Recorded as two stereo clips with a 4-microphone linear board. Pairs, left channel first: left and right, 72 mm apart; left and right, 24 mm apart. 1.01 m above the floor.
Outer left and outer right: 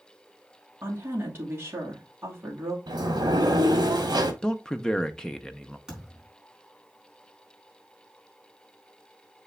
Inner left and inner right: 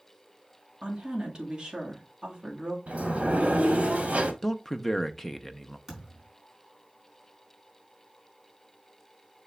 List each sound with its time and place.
0.8 s a woman speaking: 30° right (ahead or behind), 2 m
2.9 s a sliding door: 80° right, 1.3 m
4.4 s a man speaking: 10° left (ahead or behind), 0.7 m
5.9 s a thud: 10° right (ahead or behind), 4.5 m